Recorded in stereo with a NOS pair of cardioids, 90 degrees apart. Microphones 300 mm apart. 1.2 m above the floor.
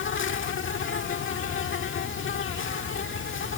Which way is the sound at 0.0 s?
45° left.